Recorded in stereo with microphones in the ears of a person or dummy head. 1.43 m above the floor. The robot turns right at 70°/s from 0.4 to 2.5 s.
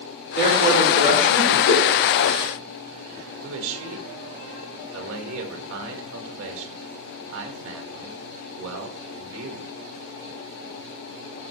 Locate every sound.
0.3 s a man speaking: 55° left, 5 m; by 1.6 s 135° left, 5 m
1.7 s a whoosh: 60° left (ahead or behind), 4 m; by 1.9 s 50° left (ahead or behind), 4 m
3.4 s a man speaking: 80° right, 1.7 m